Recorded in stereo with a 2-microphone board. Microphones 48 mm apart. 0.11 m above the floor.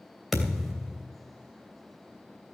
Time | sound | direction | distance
0.3 | a thud | 5° right (ahead or behind) | 2.5 m